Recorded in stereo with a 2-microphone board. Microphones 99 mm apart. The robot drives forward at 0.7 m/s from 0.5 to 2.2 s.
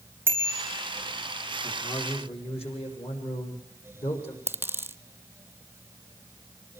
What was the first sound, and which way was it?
A bicycle bell, 20° right (ahead or behind).